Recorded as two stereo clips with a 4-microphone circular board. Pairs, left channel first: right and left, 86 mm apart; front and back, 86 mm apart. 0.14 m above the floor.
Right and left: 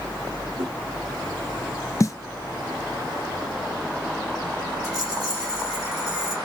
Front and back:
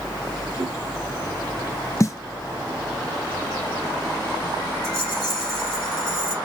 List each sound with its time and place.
0.6 s a whoosh: 145° left, 3.5 m
2.0 s a snare drum: 45° right, 0.6 m
4.8 s a rattle: 125° left, 3.5 m